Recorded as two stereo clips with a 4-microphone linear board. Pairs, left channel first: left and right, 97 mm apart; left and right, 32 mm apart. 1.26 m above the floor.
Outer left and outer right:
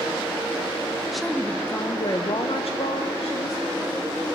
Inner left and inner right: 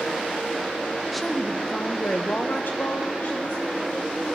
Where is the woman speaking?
Centre (ahead or behind), 0.7 m; by 3.9 s 70° left (ahead or behind), 1.2 m.